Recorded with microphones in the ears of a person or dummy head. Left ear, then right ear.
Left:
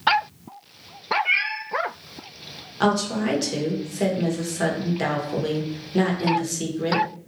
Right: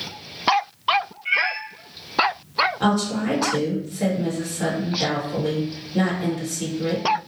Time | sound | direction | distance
1.2 | a cat meowing | 40° left (ahead or behind) | 1.7 m
2.8 | a woman speaking | 65° left (ahead or behind) | 1.2 m